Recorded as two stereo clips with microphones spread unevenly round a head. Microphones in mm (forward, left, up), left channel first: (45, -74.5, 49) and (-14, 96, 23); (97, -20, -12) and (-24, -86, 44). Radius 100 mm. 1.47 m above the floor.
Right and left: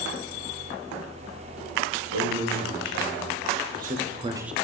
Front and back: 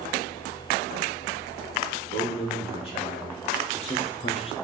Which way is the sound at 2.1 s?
85° left.